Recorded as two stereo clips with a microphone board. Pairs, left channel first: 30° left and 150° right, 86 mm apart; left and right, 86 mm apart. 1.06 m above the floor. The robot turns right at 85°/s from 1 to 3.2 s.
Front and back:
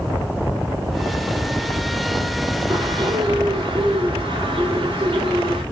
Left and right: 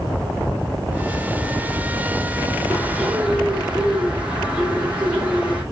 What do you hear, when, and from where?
2.7 s a bird: 150° left, 1.8 m; by 5.6 s 165° right, 1.8 m